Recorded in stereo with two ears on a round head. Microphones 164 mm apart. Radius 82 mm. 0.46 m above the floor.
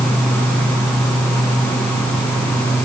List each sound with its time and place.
Only background noise.